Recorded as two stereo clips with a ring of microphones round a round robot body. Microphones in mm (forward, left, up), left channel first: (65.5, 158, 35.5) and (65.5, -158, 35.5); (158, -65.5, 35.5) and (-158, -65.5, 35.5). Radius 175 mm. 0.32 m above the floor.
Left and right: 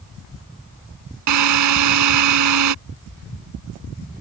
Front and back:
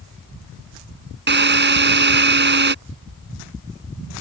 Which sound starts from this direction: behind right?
A drill, at 1.3 s.